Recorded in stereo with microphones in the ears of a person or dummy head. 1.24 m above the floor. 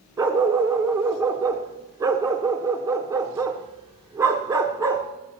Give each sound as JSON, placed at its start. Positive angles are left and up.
{"t": 0.2, "sound": "a dog barking", "side_deg": -15, "distance_m": 1.1}